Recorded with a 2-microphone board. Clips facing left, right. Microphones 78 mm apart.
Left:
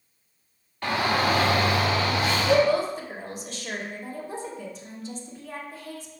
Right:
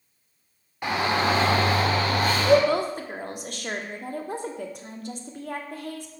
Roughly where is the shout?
Centre.